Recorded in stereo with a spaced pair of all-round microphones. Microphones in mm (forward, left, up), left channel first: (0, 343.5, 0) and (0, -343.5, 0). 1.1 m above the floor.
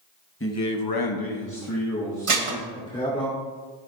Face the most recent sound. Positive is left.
turn(degrees=-50)  # may be behind; listen again after turning